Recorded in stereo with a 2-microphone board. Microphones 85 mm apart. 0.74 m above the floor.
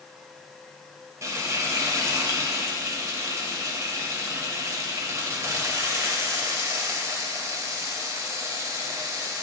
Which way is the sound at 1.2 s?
35° right (ahead or behind).